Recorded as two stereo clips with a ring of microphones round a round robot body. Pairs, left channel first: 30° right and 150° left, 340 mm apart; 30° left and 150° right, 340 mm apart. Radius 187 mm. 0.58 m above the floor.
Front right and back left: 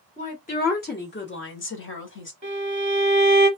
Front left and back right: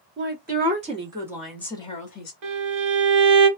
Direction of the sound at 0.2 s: 95° right.